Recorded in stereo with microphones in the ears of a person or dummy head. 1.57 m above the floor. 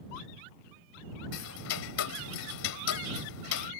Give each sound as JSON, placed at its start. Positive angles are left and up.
{"t": 1.3, "sound": "ticking", "side_deg": 70}